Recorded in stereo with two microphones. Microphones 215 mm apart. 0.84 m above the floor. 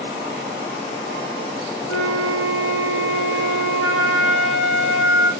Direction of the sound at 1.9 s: 70° left (ahead or behind).